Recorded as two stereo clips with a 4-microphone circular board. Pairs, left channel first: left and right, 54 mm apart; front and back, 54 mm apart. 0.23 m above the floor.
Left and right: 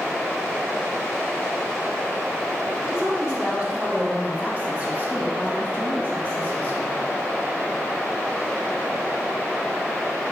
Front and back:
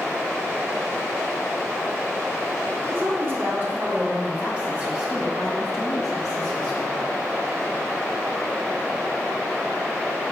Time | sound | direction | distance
2.8 | a woman speaking | 155° right | 2 m